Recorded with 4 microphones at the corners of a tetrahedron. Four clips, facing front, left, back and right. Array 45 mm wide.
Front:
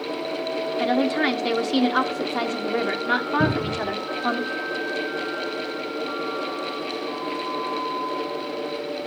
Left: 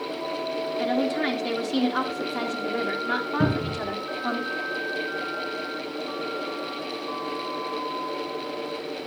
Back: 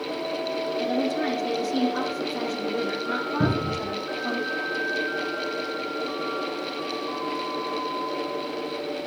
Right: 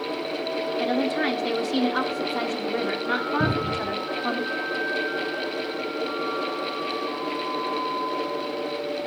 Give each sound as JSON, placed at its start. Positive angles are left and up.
{"t": 0.8, "sound": "a woman speaking", "azimuth_deg": -5, "distance_m": 2.5}
{"t": 3.4, "sound": "a cupboard door", "azimuth_deg": 105, "distance_m": 7.0}